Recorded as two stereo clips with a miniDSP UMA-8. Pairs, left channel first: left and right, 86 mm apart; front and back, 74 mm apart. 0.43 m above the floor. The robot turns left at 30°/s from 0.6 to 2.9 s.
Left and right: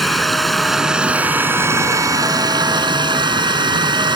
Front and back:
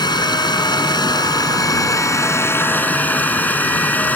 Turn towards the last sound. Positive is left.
turn(degrees=-70)